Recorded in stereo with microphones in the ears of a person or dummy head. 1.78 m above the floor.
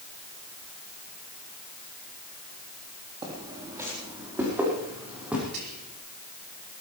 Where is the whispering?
60° right (ahead or behind), 3 m.